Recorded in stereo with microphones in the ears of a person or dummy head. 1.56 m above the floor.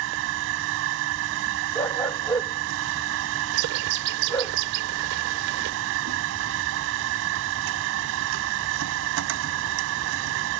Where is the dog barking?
10° left (ahead or behind).